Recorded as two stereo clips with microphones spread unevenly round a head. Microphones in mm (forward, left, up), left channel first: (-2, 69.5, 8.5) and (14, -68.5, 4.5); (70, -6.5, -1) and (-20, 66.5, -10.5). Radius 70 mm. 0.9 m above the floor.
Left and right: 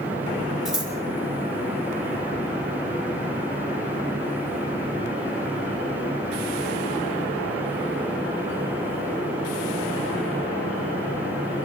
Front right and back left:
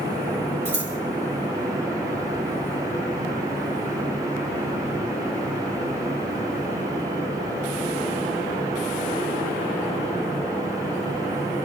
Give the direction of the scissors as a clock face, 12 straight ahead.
6 o'clock.